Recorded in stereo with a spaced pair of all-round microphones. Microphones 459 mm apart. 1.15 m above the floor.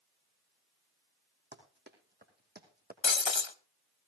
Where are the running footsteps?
25° right (ahead or behind), 3 m; by 2.9 s 20° right (ahead or behind), 2 m.